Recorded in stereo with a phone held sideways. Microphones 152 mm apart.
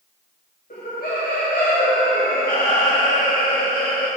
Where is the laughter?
75° left (ahead or behind), 1.4 m.